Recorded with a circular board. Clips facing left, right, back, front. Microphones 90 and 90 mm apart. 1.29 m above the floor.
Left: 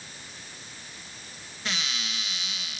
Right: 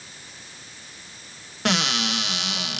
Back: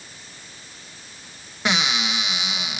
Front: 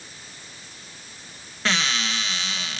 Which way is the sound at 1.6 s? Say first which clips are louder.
Right 11 dB, back 2 dB; 105° right.